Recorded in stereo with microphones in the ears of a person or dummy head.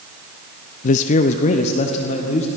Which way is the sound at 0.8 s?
50° left (ahead or behind).